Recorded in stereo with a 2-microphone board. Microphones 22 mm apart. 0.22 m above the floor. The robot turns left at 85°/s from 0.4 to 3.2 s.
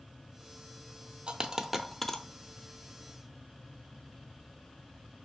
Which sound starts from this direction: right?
A dropped coin, at 1.3 s.